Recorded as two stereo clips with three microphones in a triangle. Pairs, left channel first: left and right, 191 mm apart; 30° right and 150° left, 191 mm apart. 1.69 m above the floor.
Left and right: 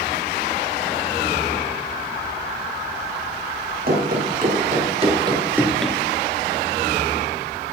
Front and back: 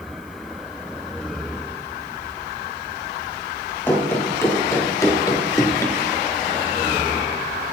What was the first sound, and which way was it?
Running footsteps, 105° right.